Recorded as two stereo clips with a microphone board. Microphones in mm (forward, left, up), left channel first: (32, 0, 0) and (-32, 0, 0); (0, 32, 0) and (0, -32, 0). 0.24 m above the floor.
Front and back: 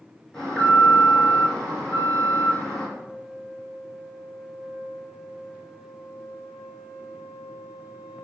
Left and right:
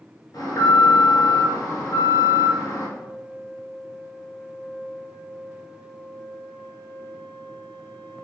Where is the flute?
25° left, 0.7 m.